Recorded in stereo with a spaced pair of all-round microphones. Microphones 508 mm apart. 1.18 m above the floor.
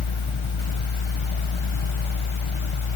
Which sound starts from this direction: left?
A fan, at 0.0 s.